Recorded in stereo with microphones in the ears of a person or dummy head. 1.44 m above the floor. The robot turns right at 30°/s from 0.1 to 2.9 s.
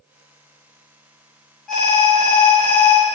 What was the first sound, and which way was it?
An alarm, straight behind.